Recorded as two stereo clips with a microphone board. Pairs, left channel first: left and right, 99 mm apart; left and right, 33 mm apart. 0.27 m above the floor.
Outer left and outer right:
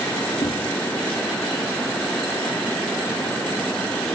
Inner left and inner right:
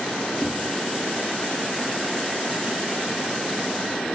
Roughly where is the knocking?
Left.